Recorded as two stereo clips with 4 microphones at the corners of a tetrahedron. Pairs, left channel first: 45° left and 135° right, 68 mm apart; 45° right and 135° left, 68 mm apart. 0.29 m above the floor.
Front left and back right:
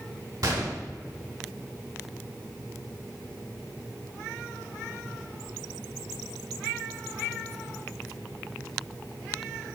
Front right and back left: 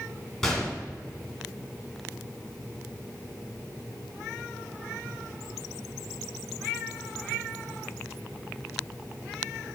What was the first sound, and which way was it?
A gunshot, 125° right.